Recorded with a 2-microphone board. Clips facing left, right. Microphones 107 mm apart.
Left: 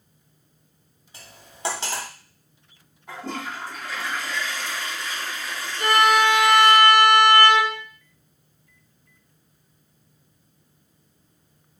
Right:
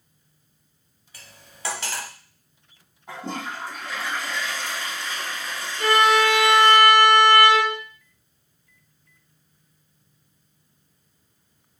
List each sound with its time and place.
1.1 s cutlery clinking: 25° left (ahead or behind), 0.6 m
3.1 s a toilet flushing: 20° right (ahead or behind), 1.7 m
5.8 s a violin: 20° right (ahead or behind), 1.1 m